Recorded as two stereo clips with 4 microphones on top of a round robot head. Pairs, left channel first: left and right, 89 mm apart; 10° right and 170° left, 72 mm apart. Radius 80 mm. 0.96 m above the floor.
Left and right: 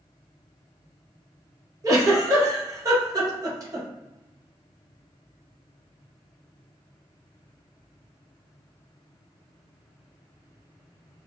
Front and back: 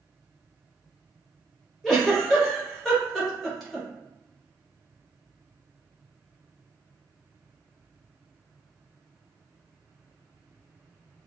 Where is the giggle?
95° right, 1.0 m.